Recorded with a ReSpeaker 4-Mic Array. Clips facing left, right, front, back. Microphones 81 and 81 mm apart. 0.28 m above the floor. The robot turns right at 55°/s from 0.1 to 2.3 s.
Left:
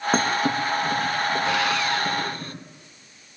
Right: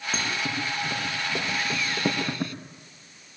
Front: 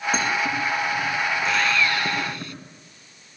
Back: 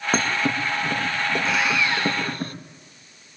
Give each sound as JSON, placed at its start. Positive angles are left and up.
{"t": 0.1, "sound": "a thud", "azimuth_deg": 130, "distance_m": 4.5}
{"t": 1.4, "sound": "sawing", "azimuth_deg": 90, "distance_m": 0.7}